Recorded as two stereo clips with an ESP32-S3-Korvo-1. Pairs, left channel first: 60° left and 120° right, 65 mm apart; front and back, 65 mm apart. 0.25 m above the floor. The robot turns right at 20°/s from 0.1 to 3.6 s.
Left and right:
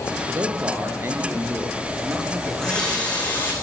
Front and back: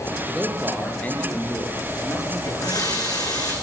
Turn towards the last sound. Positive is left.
turn(degrees=0)